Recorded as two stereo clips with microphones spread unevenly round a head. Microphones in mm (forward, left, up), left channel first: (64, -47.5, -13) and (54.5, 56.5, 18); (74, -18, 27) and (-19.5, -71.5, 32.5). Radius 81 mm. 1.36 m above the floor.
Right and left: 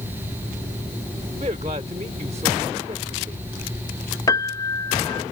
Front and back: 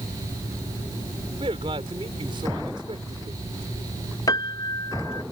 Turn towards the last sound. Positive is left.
turn(degrees=-25)